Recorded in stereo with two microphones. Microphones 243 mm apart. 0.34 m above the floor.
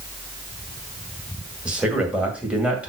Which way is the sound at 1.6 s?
5° right (ahead or behind).